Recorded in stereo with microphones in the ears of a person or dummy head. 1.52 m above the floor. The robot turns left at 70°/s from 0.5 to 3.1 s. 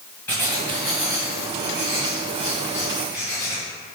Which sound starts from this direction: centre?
Writing, at 0.3 s.